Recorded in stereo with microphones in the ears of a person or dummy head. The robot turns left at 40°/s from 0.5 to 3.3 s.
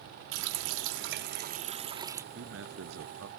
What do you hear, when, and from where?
0.3 s a running tap: 100° right; by 2.2 s 170° right
2.3 s a man speaking: 70° right; by 3.3 s 105° right